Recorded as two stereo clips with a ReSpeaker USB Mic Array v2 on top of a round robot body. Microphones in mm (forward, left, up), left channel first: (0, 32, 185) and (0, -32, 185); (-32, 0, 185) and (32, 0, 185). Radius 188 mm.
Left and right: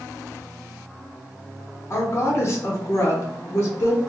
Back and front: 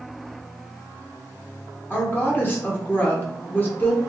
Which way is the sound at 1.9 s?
125° left.